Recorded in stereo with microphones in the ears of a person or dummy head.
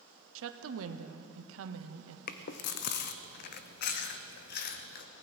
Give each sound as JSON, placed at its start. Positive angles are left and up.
{"t": 0.3, "sound": "a woman speaking", "side_deg": -75, "distance_m": 0.9}
{"t": 2.3, "sound": "chewing", "side_deg": 50, "distance_m": 0.7}